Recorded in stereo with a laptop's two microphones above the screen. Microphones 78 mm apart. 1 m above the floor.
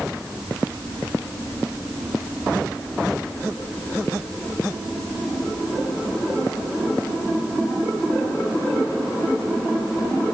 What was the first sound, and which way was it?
Only background noise.